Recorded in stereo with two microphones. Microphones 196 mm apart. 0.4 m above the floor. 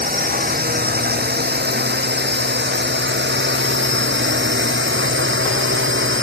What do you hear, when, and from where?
0.0 s a drone: 50° right (ahead or behind); by 6.2 s 80° right